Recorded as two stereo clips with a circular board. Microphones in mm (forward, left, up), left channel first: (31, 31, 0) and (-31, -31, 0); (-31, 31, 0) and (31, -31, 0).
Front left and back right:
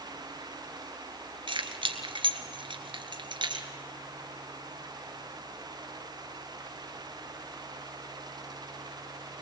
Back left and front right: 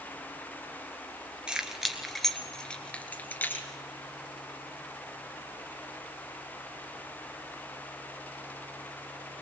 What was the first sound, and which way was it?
Keys jangling, 125° right.